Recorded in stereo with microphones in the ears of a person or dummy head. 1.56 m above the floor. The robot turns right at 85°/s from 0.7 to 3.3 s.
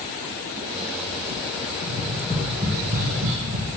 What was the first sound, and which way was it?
Tapping, 60° left (ahead or behind).